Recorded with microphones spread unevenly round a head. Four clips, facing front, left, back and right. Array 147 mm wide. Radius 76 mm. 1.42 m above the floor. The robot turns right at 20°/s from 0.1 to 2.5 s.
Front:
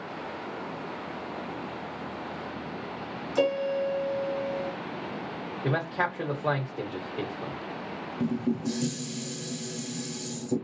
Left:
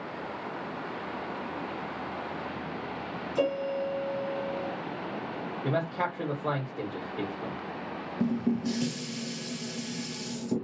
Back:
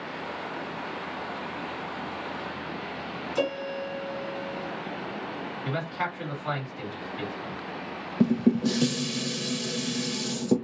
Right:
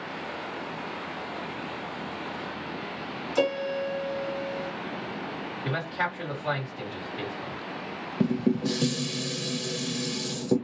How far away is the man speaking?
About 1.3 m.